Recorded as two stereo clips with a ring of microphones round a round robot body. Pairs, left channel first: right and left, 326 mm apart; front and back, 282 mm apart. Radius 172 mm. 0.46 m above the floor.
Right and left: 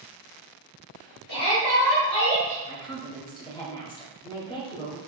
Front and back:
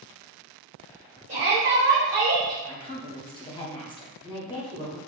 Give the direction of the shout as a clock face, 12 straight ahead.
4 o'clock.